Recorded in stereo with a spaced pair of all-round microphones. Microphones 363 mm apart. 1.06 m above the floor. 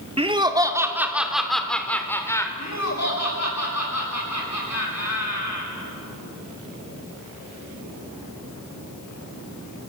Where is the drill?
No drill in this recording.